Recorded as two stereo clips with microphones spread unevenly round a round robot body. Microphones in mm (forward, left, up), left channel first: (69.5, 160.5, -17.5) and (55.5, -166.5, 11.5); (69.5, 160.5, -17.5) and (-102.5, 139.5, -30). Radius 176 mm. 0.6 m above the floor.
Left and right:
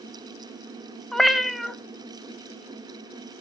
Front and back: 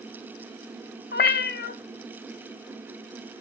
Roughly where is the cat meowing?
Ahead.